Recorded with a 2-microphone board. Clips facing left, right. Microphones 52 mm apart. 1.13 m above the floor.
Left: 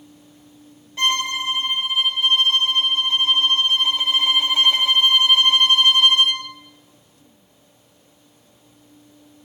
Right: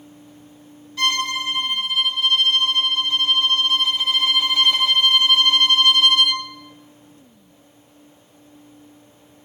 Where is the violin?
25° left (ahead or behind), 2 m.